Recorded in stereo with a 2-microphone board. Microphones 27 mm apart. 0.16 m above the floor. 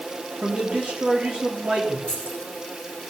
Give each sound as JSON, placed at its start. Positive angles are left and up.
{"t": 0.4, "sound": "a man speaking", "side_deg": -60, "distance_m": 3.5}
{"t": 2.1, "sound": "keys jangling", "side_deg": 30, "distance_m": 6.0}